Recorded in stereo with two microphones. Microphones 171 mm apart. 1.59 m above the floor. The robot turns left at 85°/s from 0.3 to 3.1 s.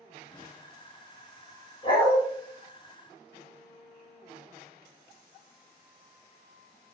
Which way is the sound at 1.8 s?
30° left (ahead or behind).